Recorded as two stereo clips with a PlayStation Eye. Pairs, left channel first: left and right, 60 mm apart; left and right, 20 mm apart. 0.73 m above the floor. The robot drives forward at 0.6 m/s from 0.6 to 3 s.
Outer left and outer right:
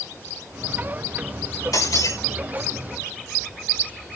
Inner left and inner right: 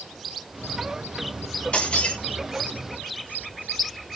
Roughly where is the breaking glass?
Left.